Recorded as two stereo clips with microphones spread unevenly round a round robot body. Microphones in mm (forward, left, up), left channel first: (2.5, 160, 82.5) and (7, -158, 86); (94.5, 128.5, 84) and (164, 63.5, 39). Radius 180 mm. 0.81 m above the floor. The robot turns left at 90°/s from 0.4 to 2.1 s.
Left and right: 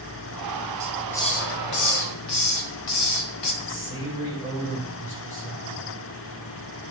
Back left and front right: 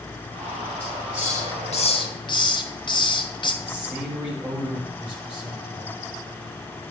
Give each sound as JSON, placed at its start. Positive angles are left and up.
{"t": 0.8, "sound": "a hiss", "azimuth_deg": -155, "distance_m": 1.6}
{"t": 3.6, "sound": "a man speaking", "azimuth_deg": 35, "distance_m": 5.5}